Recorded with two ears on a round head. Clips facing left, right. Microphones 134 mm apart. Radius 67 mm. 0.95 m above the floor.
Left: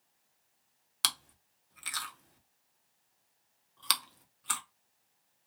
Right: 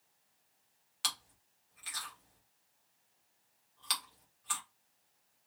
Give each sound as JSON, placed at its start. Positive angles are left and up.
{"t": 1.0, "sound": "chewing", "side_deg": 70, "distance_m": 1.0}